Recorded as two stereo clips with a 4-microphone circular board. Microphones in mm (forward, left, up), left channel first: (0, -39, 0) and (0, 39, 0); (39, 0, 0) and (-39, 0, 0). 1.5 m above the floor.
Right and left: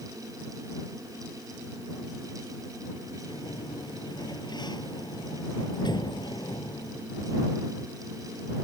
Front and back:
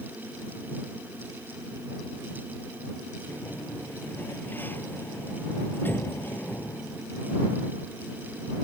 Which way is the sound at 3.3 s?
65° right.